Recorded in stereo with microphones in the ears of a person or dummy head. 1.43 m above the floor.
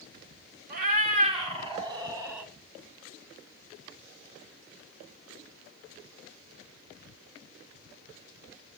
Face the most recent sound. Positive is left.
turn(degrees=-15)  # may be behind; listen again after turning